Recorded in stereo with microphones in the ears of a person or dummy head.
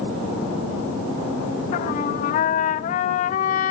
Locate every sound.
1.7 s a trumpet: 50° left (ahead or behind), 1.4 m